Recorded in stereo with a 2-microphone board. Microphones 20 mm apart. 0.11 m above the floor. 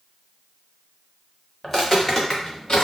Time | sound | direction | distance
1.6 | footsteps | 20° left (ahead or behind) | 1.1 m